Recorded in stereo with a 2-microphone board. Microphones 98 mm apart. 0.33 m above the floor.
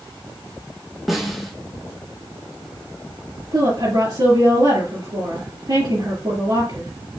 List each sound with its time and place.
1.1 s a snare drum: centre (ahead or behind), 3 m
3.5 s a woman speaking: 45° right (ahead or behind), 5 m